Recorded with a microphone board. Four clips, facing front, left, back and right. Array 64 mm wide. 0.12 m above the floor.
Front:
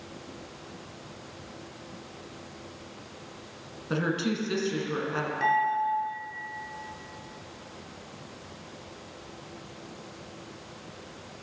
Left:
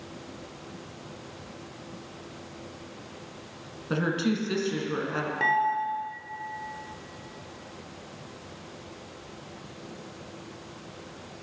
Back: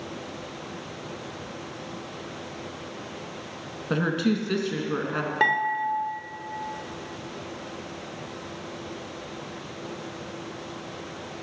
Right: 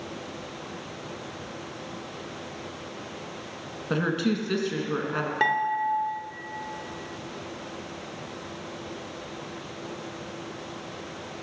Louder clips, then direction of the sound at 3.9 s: Right 1 dB, back 4 dB; 145° right.